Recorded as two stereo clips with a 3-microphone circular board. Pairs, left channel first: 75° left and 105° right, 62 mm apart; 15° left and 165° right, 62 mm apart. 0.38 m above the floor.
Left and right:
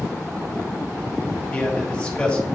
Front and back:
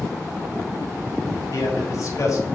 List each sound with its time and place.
1.5 s a man speaking: 5° left, 1.8 m